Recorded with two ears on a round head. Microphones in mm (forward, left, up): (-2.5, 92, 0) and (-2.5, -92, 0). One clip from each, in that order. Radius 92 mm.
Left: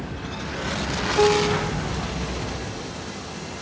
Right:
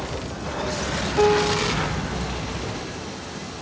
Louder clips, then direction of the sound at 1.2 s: Right 1 dB; centre (ahead or behind).